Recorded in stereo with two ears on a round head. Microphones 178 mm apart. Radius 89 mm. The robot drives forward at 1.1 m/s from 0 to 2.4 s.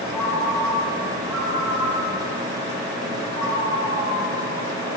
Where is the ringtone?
10° left (ahead or behind), 0.8 m; by 4.9 s centre (ahead or behind), 3 m.